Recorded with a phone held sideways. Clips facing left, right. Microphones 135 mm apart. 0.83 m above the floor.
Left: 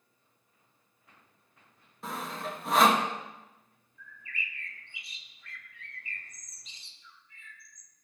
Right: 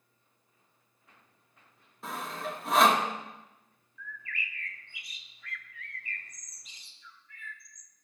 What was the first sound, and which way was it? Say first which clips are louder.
Sawing: even; centre (ahead or behind).